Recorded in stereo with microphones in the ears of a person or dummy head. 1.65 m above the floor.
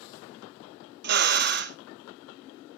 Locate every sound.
1.0 s a drill: 55° right (ahead or behind), 0.7 m